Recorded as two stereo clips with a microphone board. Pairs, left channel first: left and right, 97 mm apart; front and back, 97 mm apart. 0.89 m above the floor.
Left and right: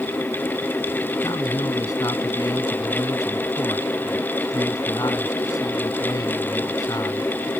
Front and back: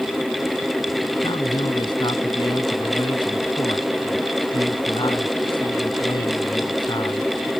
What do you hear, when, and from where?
1.2 s a man speaking: 40° left